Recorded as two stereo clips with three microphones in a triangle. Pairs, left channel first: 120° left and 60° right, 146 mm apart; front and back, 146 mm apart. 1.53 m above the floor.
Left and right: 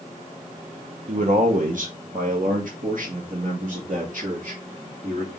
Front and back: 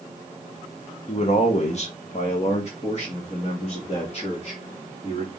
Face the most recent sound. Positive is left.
turn(degrees=-40)